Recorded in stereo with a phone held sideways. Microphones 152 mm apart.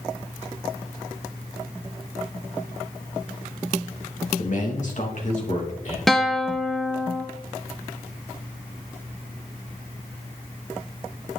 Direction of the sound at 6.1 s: Centre (ahead or behind).